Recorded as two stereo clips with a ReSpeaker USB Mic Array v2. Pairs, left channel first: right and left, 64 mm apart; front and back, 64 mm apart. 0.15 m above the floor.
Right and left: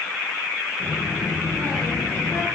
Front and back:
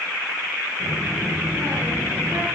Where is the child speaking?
135° right, 7 m; by 2.5 s 130° right, 8 m.